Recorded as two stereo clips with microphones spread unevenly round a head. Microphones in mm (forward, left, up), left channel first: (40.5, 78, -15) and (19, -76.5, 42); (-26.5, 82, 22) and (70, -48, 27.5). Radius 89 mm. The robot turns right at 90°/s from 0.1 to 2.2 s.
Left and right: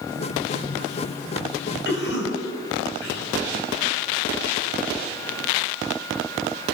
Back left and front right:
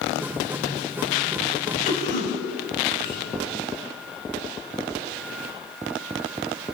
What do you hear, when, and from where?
1.9 s a cough: 80° left, 8 m; by 3.3 s 110° left, 8 m